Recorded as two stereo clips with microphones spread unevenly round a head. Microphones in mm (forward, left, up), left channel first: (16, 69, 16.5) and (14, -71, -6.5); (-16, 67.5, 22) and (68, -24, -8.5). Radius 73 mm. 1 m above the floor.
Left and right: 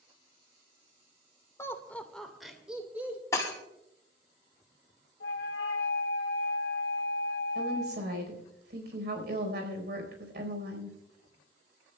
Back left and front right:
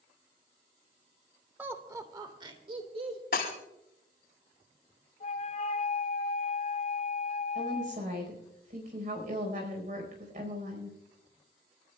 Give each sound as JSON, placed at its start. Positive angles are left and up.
{"t": 1.6, "sound": "laughter", "azimuth_deg": 15, "distance_m": 1.5}
{"t": 3.3, "sound": "breaking glass", "azimuth_deg": 160, "distance_m": 4.0}
{"t": 5.2, "sound": "a flute", "azimuth_deg": 105, "distance_m": 2.0}
{"t": 7.5, "sound": "a woman speaking", "azimuth_deg": -85, "distance_m": 4.5}